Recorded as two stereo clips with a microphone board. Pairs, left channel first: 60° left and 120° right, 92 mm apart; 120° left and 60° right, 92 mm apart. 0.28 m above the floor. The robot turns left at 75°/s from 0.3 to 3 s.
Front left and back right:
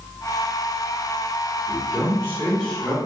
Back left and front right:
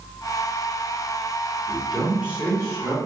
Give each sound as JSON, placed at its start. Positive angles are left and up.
{"t": 1.7, "sound": "a man speaking", "azimuth_deg": 55, "distance_m": 1.9}